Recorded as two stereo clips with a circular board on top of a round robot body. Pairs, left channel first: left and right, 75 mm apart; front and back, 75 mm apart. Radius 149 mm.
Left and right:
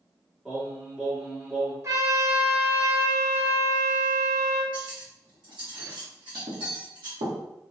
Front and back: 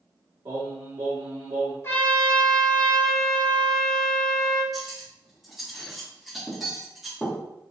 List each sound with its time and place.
0.5 s singing: 170° right, 1.2 m
1.8 s a trumpet: 45° right, 1.7 m
4.7 s cutlery clinking: 95° right, 1.0 m